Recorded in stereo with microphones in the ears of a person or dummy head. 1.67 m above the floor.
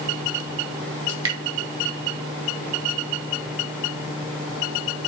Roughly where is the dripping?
Right.